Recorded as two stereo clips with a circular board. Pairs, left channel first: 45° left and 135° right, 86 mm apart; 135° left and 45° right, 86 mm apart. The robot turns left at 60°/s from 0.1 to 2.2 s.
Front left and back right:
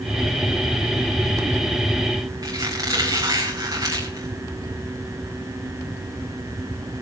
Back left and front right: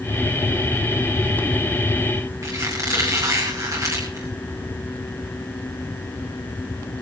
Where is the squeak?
95° right, 5.5 m.